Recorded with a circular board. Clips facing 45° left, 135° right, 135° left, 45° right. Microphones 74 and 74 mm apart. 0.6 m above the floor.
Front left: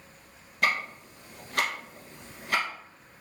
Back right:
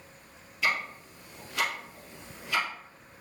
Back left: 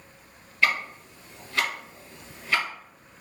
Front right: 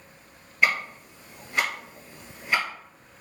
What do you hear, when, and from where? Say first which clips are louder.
0.6 s ticking: front left 2 dB, front right 1 dB; 30° left, 1.7 m